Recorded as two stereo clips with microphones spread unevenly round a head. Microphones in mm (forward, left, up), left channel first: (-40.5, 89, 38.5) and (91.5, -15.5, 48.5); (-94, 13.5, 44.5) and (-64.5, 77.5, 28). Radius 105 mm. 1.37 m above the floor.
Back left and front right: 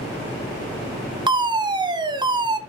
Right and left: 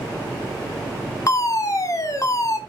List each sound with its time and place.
1.3 s a fire alarm: 90° right, 1.5 m